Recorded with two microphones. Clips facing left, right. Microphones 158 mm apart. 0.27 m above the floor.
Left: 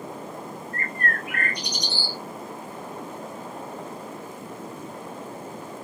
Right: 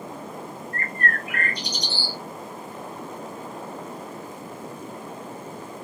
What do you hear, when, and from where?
0.7 s a bird: 15° left (ahead or behind), 1.7 m